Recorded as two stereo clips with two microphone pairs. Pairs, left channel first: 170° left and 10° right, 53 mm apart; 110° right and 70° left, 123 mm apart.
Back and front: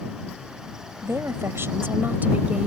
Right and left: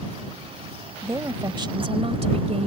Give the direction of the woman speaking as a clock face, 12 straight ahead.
12 o'clock.